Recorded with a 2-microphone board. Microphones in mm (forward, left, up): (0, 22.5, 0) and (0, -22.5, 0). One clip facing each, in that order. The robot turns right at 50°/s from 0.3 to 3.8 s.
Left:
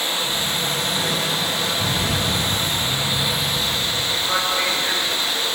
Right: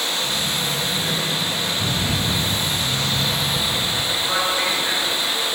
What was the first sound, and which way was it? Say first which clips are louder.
Running water: even; 25° left.